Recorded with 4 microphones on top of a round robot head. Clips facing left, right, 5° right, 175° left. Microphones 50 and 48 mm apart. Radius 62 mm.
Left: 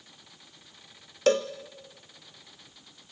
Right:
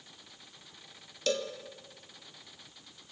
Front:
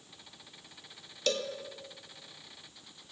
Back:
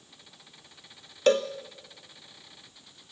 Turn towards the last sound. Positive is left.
turn(degrees=130)